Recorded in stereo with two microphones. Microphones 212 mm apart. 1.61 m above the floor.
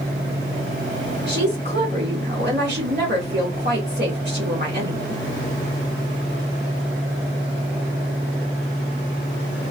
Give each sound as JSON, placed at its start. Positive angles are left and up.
{"t": 1.3, "sound": "a woman speaking", "side_deg": -55, "distance_m": 2.0}